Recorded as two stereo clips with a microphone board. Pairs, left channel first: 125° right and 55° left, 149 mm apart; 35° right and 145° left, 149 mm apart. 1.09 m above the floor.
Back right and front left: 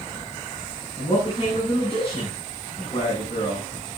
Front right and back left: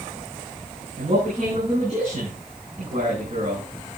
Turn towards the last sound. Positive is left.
turn(degrees=-175)